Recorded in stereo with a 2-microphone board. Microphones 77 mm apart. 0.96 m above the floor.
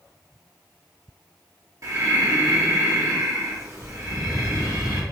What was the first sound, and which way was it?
Breathing, 40° right (ahead or behind).